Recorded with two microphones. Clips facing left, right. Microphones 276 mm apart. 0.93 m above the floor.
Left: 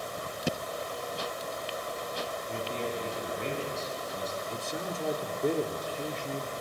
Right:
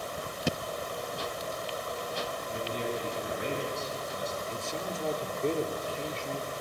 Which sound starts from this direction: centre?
A man speaking, at 4.5 s.